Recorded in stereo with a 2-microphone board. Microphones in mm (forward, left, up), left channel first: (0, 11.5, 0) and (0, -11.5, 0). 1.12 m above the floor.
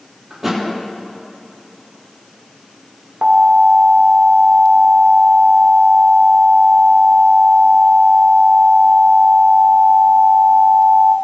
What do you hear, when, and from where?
0.3 s a thud: 15° right (ahead or behind), 5 m
3.2 s an alarm: 65° right (ahead or behind), 1.5 m